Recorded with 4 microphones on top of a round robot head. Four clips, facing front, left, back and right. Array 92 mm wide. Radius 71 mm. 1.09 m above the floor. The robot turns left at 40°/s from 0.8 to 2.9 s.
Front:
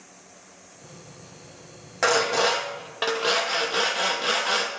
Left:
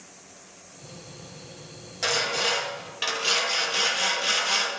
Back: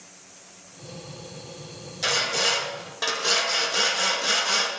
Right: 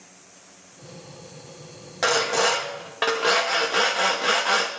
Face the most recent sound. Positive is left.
turn(degrees=-70)